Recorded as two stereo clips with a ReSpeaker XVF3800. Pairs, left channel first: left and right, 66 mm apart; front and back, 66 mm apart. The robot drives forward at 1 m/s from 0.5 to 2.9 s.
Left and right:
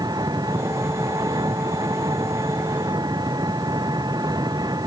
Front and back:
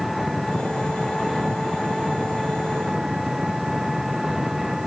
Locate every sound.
0.0 s an engine running: 90° right; by 4.9 s 95° right